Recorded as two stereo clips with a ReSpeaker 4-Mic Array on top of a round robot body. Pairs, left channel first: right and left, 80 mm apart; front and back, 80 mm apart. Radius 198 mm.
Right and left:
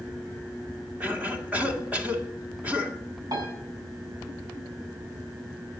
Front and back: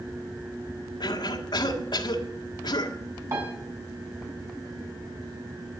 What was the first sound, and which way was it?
A cough, 20° left.